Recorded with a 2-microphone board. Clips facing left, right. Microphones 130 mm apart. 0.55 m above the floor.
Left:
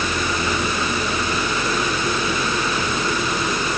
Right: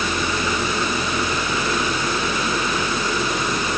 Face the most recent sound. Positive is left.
No sound to turn to.